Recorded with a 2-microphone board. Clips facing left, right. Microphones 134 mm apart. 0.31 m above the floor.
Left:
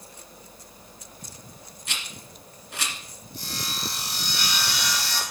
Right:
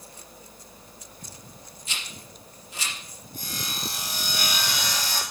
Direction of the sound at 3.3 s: 50° right (ahead or behind).